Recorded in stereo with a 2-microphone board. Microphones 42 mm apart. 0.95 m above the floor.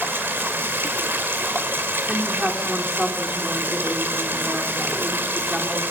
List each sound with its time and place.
0.0 s running water: 70° right (ahead or behind), 2 m
2.1 s a woman speaking: 20° right (ahead or behind), 2.5 m